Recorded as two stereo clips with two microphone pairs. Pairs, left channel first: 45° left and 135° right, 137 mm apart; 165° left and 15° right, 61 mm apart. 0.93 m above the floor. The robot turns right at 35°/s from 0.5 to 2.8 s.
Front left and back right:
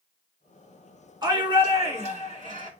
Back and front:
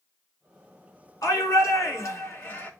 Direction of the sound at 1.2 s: 170° left.